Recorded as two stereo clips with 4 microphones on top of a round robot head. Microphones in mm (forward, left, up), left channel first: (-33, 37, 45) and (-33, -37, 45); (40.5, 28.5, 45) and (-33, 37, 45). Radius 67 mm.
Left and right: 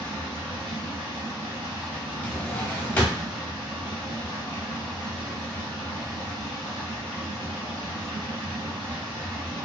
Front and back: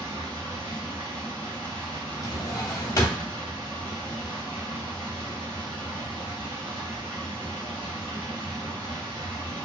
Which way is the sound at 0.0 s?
45° right.